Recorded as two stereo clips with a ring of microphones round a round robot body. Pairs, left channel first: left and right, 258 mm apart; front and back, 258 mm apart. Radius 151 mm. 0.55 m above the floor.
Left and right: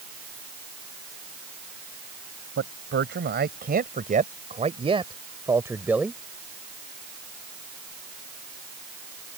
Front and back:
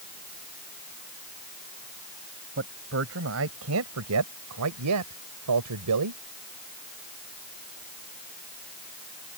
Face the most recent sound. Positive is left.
turn(degrees=180)